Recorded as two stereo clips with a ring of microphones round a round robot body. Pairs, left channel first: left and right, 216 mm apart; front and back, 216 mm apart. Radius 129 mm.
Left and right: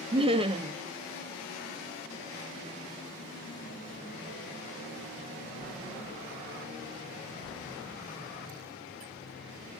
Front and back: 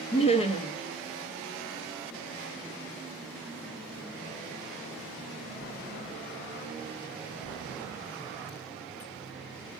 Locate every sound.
0.1 s laughter: 40° right, 0.6 m